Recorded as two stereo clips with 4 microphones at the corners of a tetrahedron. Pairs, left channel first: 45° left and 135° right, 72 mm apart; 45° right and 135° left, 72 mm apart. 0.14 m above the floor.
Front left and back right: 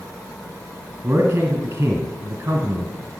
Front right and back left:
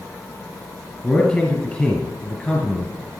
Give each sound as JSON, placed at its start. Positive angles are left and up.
{"t": 1.0, "sound": "a man speaking", "azimuth_deg": -110, "distance_m": 1.7}